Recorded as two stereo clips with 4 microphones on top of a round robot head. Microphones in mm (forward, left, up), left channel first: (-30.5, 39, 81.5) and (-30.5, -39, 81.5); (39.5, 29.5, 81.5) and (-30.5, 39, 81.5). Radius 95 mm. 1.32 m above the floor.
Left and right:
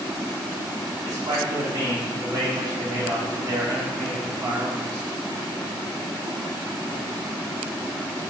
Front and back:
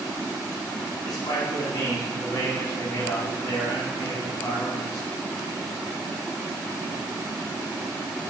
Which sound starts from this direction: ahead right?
A man speaking, at 1.0 s.